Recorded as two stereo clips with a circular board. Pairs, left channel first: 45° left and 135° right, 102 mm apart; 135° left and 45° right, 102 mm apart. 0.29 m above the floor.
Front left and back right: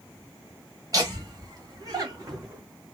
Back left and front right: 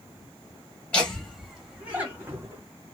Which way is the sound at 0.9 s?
150° right.